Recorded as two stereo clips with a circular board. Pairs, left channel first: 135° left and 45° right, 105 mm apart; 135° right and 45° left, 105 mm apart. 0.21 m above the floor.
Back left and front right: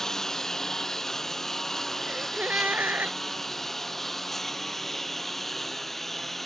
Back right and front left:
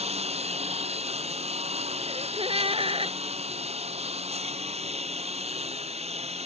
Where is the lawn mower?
50° left; by 6.5 s 45° left.